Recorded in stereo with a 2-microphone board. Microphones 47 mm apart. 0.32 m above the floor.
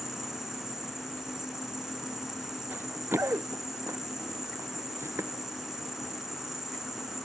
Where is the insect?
10° right (ahead or behind).